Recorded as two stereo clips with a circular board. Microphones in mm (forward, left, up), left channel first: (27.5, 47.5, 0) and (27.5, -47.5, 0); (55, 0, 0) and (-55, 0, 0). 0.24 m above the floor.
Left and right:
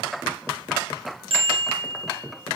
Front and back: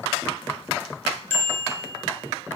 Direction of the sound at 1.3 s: 70° right.